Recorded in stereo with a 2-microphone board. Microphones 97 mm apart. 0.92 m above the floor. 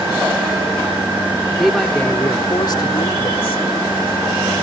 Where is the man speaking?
Centre (ahead or behind); by 3.6 s 75° left (ahead or behind).